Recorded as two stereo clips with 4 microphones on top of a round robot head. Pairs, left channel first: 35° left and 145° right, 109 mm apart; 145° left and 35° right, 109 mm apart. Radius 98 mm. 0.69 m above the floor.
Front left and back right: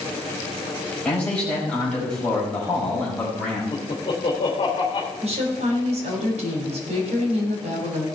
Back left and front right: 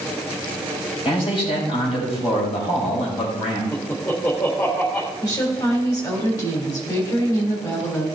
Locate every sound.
1.1 s a man speaking: 115° left, 4.5 m
3.7 s laughter: 80° left, 3 m
5.2 s a woman speaking: 155° right, 3.5 m